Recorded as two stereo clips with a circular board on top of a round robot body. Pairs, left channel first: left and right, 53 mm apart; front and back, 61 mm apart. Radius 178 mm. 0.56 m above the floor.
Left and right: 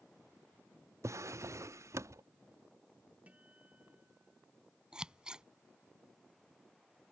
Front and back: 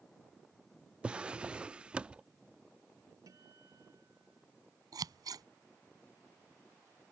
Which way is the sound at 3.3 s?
155° right.